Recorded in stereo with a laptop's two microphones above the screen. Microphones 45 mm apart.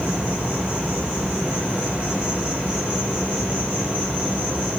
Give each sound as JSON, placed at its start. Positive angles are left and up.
{"t": 0.0, "sound": "an insect", "side_deg": -40, "distance_m": 2.5}